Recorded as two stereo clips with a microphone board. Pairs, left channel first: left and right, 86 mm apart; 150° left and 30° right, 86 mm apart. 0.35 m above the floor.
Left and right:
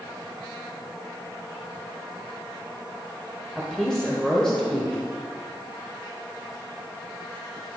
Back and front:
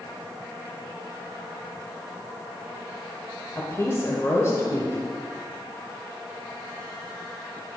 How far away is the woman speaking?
About 1.1 m.